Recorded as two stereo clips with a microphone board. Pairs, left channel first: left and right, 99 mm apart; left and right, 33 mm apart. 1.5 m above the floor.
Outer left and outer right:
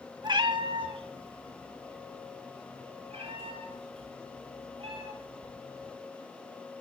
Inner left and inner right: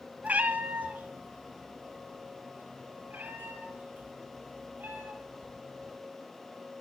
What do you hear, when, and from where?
0.2 s a cat meowing: 50° right (ahead or behind), 1.9 m; by 5.9 s 80° right, 10.5 m